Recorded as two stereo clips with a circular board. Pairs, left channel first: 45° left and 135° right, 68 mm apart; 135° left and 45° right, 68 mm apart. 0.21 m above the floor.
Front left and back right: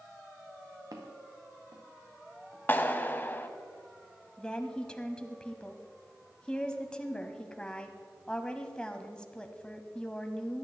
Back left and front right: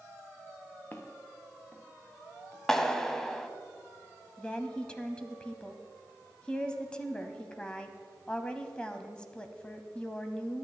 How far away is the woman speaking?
About 0.9 m.